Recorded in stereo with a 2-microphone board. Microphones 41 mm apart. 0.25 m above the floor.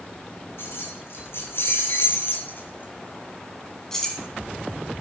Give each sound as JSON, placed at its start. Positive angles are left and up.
{"t": 0.6, "sound": "keys jangling", "side_deg": 70, "distance_m": 3.0}